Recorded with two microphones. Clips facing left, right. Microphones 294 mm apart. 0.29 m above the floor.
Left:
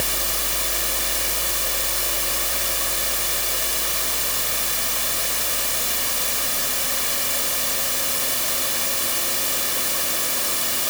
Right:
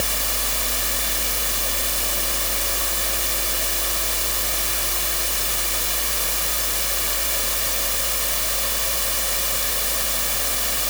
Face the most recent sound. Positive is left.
No sound to turn to.